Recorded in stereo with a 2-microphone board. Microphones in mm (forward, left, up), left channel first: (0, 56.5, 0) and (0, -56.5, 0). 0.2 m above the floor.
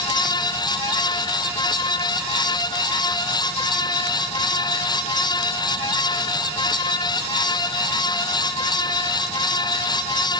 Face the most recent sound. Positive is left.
No sound to turn to.